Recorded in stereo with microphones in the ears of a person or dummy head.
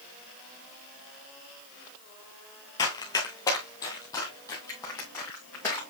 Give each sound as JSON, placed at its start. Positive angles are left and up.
{"t": 2.8, "sound": "running footsteps", "side_deg": 15, "distance_m": 1.4}